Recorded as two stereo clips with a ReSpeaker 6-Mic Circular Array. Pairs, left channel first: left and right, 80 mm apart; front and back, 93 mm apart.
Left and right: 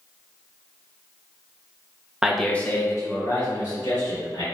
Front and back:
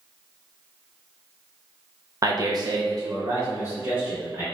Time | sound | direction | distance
2.2 | a man speaking | 165° right | 0.7 m